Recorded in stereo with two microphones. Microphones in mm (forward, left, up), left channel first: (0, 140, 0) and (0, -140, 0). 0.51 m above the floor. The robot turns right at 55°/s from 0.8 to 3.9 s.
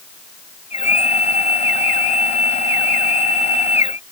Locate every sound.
Only background noise.